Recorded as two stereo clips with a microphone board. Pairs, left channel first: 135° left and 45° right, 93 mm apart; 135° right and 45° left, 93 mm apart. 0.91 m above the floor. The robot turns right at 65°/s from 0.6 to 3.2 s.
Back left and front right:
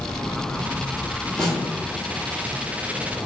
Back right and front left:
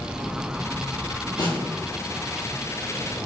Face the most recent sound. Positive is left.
turn(degrees=-25)